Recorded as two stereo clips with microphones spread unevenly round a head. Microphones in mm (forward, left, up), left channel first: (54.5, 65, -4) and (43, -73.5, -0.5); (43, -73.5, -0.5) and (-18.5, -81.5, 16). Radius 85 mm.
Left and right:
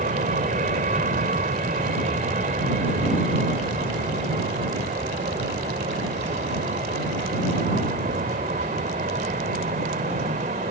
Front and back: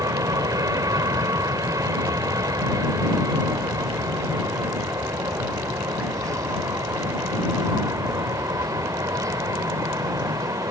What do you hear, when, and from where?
0.0 s an aircraft: 145° right